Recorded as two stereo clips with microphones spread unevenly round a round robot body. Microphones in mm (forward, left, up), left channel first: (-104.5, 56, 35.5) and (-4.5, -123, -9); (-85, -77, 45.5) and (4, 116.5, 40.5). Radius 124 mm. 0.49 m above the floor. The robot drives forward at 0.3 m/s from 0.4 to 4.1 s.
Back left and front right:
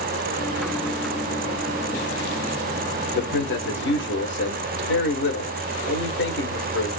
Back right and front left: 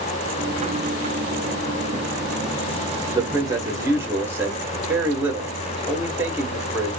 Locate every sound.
3.1 s a man speaking: 120° left, 0.8 m; by 7.0 s 140° left, 0.9 m